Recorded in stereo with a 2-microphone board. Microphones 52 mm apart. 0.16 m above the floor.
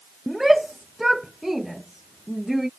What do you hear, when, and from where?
0.3 s a shout: 5° right (ahead or behind)